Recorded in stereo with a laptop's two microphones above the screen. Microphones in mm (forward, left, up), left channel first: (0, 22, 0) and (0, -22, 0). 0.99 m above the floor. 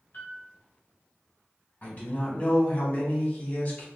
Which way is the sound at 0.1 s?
50° left (ahead or behind).